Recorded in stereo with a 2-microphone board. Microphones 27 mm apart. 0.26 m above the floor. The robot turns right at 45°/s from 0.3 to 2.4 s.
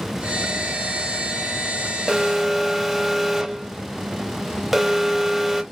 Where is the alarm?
10° right (ahead or behind), 0.7 m; by 5.6 s 5° right (ahead or behind), 0.7 m.